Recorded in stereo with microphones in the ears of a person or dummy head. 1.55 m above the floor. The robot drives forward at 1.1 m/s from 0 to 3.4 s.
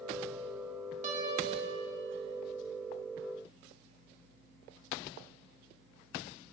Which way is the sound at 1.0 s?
40° right (ahead or behind).